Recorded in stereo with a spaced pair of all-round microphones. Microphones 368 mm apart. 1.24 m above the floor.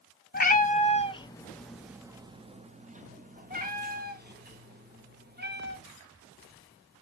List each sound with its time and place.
0.3 s a cat meowing: 25° left (ahead or behind), 0.9 m; by 5.8 s 25° right (ahead or behind), 2.5 m